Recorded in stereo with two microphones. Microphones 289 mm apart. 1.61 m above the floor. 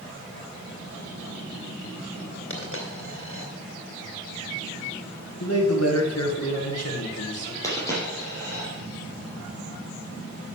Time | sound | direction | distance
2.5 | a dropped coin | 45° left (ahead or behind) | 2 m
5.4 | a man speaking | 55° left (ahead or behind) | 1.9 m
7.6 | a dropped coin | 10° left (ahead or behind) | 4 m